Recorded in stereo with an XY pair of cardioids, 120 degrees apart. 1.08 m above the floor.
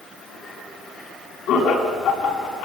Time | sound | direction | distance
1.5 | laughter | 65° left | 7.5 m